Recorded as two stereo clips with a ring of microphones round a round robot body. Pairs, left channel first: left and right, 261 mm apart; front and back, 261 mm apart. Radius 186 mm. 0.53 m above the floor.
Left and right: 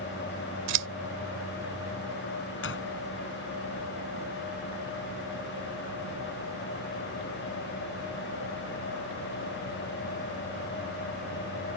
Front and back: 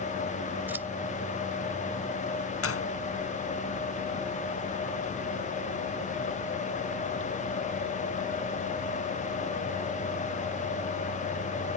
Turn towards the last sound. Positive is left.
turn(degrees=30)